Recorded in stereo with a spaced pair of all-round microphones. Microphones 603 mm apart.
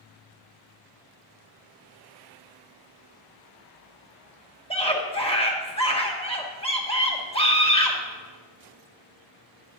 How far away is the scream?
About 1.5 m.